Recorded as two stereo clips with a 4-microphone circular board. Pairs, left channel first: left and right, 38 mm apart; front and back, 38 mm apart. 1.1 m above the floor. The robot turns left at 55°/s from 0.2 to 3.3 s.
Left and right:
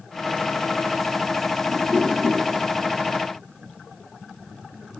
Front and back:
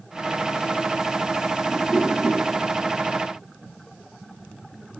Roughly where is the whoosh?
Ahead right.